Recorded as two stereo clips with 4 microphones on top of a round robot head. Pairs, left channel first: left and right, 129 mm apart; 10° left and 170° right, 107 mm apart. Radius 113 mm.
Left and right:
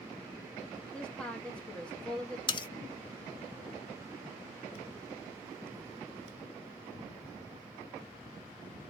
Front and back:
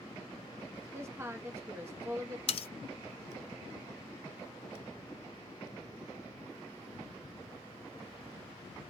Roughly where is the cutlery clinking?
Ahead left.